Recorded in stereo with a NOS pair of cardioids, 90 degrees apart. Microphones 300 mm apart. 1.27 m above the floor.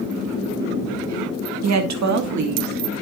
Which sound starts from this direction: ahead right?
A woman speaking, at 1.6 s.